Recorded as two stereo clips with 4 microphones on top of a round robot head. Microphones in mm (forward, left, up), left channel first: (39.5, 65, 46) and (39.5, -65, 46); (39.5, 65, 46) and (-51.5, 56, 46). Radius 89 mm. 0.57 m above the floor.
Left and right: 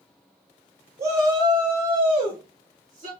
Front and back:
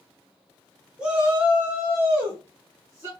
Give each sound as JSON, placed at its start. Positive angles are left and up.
{"t": 1.0, "sound": "a shout", "azimuth_deg": -105, "distance_m": 0.8}